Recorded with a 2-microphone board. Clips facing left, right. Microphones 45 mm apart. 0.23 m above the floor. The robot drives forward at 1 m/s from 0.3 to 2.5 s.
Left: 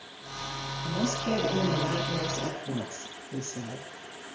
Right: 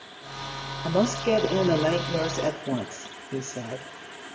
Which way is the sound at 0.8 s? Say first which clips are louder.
Right 7 dB; 55° right (ahead or behind).